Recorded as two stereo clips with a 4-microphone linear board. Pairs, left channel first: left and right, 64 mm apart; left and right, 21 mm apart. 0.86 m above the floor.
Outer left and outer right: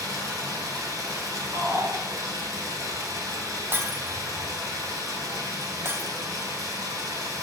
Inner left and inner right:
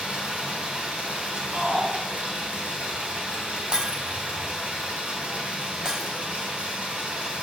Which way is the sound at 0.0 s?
75° right (ahead or behind).